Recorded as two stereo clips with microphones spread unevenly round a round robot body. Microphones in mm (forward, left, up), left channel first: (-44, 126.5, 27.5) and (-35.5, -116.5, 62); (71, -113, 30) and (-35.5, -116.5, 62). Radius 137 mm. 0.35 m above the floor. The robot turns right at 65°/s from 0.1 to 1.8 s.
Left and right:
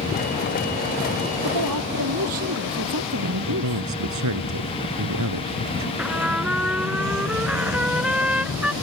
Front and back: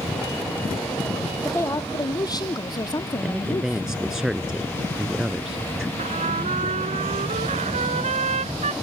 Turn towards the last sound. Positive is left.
turn(degrees=-175)